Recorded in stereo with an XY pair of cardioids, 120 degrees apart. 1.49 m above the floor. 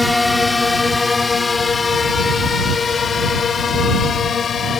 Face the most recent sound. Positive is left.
turn(degrees=45)